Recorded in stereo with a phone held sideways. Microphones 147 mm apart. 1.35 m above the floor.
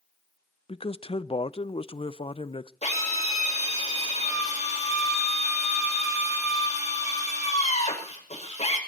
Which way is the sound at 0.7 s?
40° left (ahead or behind).